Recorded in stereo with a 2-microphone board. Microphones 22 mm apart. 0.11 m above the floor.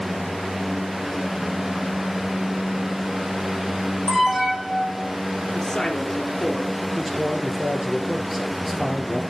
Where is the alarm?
10° right (ahead or behind), 5.5 m.